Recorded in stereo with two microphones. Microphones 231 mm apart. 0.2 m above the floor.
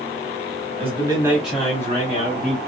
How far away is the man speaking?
About 1.7 m.